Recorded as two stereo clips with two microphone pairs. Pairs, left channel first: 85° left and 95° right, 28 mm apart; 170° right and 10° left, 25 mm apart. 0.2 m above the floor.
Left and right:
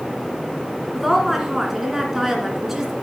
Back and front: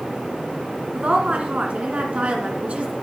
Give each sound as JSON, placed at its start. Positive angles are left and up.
{"t": 0.9, "sound": "a woman speaking", "azimuth_deg": -15, "distance_m": 2.0}